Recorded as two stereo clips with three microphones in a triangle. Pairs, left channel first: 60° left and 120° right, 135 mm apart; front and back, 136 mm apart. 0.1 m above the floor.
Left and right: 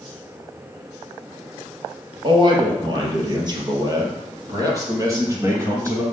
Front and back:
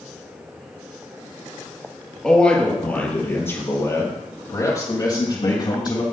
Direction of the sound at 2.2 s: 85° right.